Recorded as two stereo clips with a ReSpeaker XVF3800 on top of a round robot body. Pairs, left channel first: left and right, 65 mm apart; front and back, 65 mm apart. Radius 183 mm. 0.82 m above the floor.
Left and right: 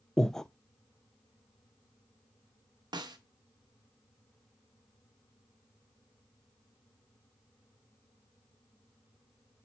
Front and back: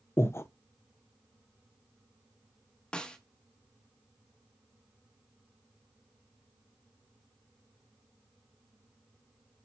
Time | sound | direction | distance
0.2 | breathing | 10° left | 0.7 m
2.9 | a snare drum | 75° right | 1.2 m